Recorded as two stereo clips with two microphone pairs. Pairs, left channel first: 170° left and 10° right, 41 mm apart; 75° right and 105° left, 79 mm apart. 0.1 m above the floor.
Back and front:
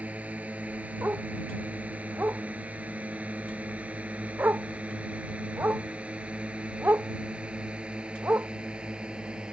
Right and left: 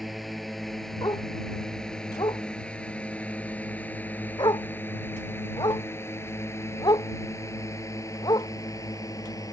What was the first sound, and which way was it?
A drone, 15° left.